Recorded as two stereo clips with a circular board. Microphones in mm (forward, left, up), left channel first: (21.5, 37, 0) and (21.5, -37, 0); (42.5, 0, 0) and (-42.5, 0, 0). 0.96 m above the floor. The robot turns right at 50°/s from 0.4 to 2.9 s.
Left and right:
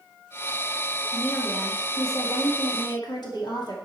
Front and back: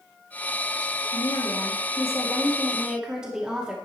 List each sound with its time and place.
1.1 s a woman speaking: 10° left, 2.5 m; by 3.8 s 100° left, 2.5 m